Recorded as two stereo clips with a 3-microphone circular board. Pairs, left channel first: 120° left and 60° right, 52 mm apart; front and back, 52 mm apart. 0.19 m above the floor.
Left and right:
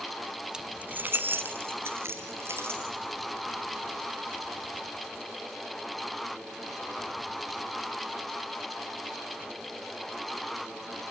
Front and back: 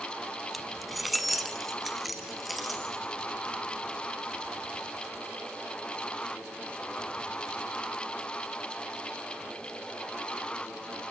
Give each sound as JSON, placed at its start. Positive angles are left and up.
{"t": 0.5, "sound": "keys jangling", "azimuth_deg": -90, "distance_m": 0.7}